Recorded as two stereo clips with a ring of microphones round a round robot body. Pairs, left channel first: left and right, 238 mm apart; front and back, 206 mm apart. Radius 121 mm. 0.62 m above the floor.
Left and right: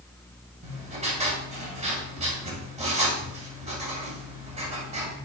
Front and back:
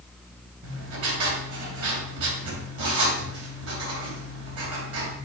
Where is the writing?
155° right, 2.5 m.